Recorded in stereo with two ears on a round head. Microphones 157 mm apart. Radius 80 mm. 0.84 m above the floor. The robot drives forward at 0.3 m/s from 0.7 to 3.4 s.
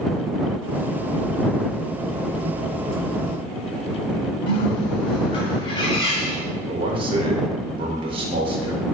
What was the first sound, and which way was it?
A bird, 30° left (ahead or behind).